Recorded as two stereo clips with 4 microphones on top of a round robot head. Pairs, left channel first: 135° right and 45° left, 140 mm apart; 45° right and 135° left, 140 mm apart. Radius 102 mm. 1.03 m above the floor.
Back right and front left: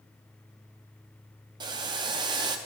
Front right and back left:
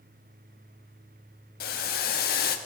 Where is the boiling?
20° right, 0.7 m.